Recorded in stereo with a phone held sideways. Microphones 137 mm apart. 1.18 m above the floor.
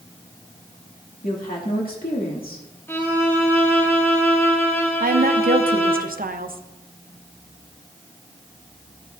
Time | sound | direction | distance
1.2 | a woman speaking | 80° left | 2.5 m
2.9 | a violin | 15° left (ahead or behind) | 1.4 m
5.0 | a woman speaking | 80° right | 0.8 m